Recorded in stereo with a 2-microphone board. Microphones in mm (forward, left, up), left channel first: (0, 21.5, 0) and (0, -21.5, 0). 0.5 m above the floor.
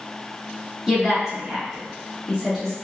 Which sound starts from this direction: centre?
A woman speaking, at 0.9 s.